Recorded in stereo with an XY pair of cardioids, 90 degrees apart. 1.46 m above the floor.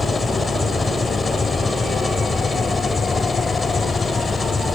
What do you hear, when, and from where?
0.0 s an engine running: 35° left